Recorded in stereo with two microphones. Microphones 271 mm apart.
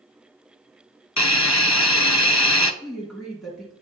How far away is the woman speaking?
About 2 m.